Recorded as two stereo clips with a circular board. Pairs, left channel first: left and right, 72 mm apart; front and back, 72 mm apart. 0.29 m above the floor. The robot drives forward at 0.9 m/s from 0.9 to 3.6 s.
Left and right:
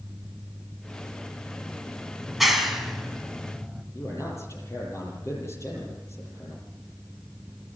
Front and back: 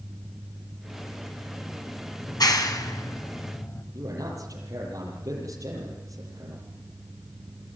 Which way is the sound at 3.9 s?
140° left.